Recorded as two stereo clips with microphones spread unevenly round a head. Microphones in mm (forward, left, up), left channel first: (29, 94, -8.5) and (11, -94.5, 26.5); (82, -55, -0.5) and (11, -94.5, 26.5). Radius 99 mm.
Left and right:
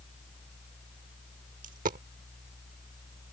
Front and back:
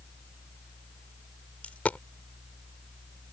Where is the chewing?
No chewing in this recording.